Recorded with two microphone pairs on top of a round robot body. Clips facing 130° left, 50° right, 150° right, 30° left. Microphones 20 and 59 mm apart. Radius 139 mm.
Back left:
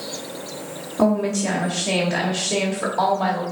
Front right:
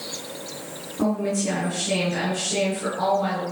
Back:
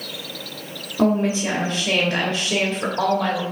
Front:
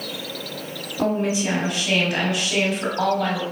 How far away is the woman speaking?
About 2 m.